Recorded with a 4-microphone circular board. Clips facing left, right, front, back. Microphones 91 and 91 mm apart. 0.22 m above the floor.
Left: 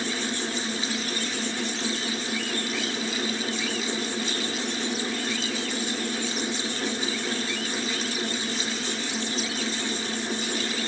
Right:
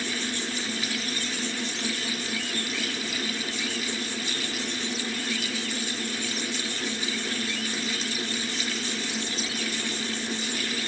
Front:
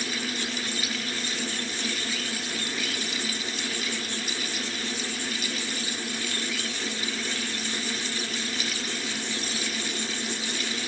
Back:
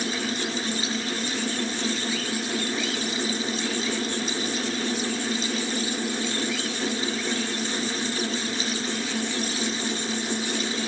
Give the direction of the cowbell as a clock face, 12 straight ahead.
No cowbell in this recording.